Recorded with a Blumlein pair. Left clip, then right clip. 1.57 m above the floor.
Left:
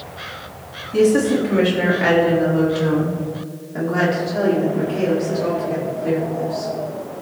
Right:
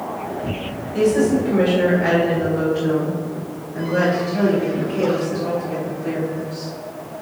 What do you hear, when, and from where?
0.9 s a woman speaking: 45° left, 4 m; by 6.7 s 10° left, 6.5 m